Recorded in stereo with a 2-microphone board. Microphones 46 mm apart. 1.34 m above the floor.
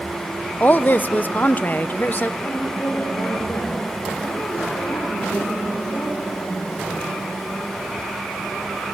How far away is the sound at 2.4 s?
About 5.5 m.